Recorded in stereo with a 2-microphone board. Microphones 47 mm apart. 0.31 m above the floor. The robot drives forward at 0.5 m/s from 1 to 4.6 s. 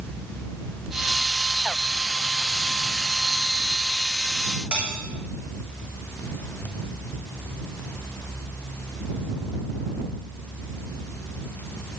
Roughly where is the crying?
No crying in this recording.